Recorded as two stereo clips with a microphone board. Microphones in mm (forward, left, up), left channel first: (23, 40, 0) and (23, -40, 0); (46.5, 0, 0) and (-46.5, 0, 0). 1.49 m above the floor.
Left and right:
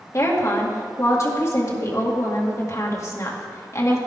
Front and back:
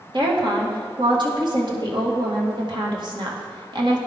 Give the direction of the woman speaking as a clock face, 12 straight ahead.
7 o'clock.